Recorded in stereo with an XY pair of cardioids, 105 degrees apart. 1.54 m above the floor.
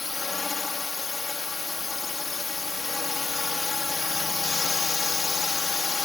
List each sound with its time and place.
0.0 s a drone: 30° left